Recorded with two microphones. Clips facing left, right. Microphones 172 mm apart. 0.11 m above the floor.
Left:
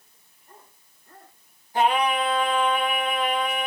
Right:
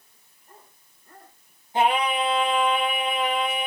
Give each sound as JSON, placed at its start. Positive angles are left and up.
{"t": 1.7, "sound": "singing", "side_deg": -25, "distance_m": 1.8}